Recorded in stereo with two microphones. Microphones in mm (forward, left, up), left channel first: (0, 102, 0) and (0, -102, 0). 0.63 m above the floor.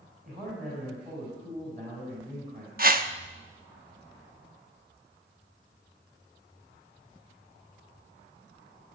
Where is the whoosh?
45° right (ahead or behind), 0.9 m.